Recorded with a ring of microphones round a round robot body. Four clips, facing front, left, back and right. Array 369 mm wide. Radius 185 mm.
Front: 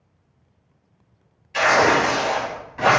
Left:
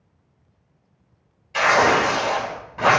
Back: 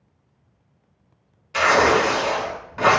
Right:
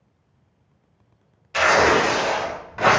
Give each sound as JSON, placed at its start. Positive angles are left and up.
{"t": 1.5, "sound": "tearing paper", "azimuth_deg": -135, "distance_m": 1.2}